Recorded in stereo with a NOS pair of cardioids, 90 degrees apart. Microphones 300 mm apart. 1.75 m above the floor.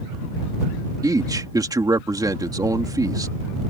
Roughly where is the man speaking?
Ahead.